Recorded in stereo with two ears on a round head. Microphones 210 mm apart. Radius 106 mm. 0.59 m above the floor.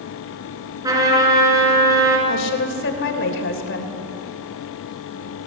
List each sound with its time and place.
0.8 s a trumpet: 15° right (ahead or behind), 4 m
2.3 s a woman speaking: 60° left (ahead or behind), 3 m